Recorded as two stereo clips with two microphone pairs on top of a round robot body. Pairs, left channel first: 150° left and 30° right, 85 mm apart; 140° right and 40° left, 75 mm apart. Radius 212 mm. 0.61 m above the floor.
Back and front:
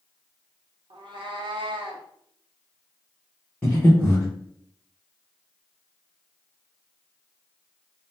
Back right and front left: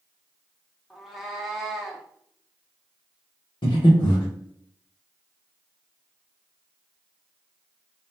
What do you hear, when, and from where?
0.9 s a cat meowing: 50° right, 0.7 m
3.6 s breathing: 130° right, 0.7 m